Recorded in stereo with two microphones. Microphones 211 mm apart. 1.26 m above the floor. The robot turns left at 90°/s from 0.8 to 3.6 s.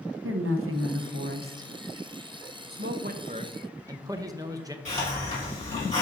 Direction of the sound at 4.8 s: 35° left (ahead or behind).